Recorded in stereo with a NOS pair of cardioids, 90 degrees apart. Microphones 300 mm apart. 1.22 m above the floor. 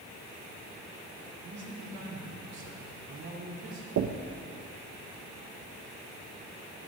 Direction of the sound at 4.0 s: 55° right.